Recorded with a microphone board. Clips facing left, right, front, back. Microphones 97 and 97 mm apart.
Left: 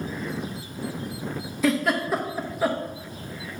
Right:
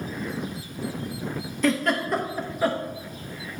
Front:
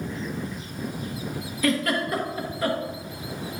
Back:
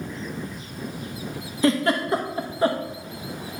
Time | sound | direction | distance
1.6 | a giggle | 170° left | 1.1 m